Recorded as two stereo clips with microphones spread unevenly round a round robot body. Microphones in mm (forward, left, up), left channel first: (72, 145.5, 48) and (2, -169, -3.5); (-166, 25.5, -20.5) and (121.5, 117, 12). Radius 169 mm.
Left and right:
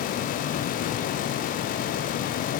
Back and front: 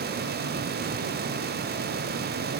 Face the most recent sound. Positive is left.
No sound to turn to.